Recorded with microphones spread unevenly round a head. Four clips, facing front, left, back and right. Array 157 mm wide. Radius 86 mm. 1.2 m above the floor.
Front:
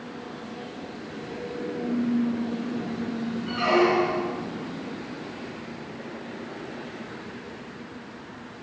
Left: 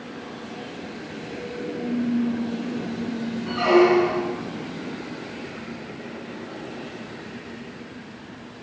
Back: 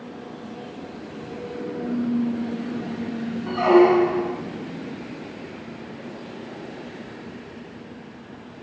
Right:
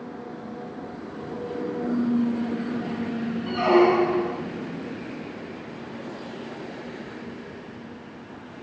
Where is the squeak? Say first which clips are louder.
Left 1 dB, back 7 dB; 175° right, 2.5 m.